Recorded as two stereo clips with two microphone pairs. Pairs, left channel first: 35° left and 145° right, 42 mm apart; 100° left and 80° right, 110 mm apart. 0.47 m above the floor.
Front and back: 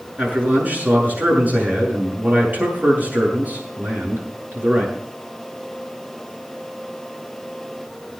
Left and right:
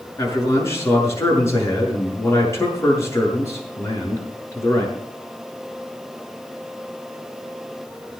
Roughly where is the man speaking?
Behind.